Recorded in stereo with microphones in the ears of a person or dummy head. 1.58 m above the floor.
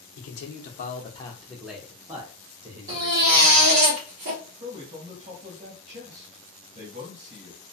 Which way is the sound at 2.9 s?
40° right (ahead or behind).